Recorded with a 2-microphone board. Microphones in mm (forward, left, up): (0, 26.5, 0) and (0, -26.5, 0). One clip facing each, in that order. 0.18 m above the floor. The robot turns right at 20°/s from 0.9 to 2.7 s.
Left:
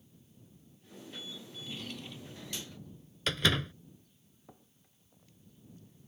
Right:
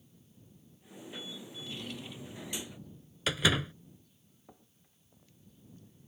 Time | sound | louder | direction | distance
1.5 | a drawer | even | 5° left (ahead or behind) | ?
3.3 | a door slam | right 1 dB | 5° right (ahead or behind) | ?